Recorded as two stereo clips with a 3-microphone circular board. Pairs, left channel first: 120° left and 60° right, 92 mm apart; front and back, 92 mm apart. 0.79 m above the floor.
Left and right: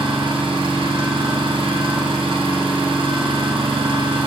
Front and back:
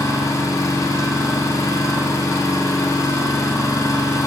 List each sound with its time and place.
0.0 s an engine running: 55° right, 2.5 m